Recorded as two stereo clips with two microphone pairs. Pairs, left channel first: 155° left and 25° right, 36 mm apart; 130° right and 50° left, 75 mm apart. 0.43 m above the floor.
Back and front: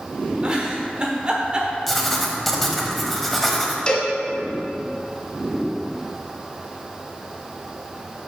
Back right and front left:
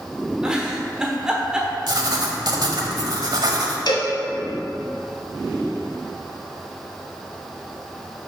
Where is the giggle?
15° right, 1.1 m.